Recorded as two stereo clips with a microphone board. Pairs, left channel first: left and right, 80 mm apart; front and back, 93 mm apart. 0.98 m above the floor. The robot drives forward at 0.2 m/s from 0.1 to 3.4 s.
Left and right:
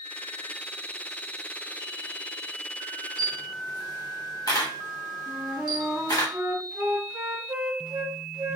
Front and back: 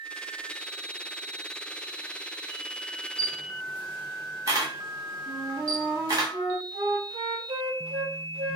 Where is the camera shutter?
125° left, 1.2 m.